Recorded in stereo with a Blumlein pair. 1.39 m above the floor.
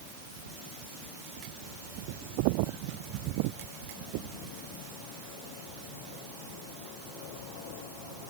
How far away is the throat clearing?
I don't hear throat clearing.